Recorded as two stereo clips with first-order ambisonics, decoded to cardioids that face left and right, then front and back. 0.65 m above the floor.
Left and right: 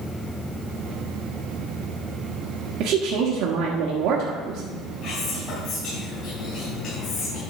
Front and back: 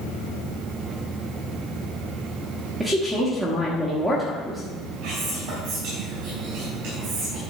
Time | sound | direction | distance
2.8 | a woman speaking | 90° right | 1.4 m
5.0 | whispering | 150° left | 4 m